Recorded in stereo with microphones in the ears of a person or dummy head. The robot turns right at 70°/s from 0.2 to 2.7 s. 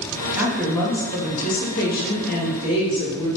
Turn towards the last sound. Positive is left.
turn(degrees=145)